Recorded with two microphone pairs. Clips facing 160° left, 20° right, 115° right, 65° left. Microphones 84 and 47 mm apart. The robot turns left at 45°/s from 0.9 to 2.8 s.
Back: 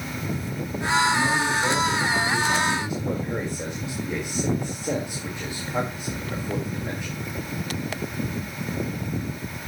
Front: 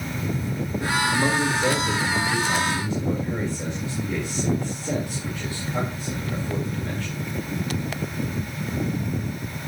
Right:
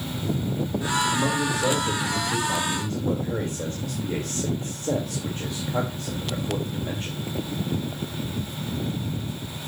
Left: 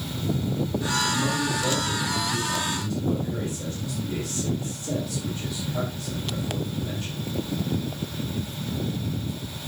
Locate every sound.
1.1 s a man speaking: 60° right, 1.8 m; by 7.2 s 135° right, 1.8 m